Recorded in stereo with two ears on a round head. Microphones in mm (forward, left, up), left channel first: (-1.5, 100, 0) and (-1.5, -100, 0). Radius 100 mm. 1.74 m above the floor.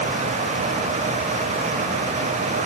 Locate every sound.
Only background noise.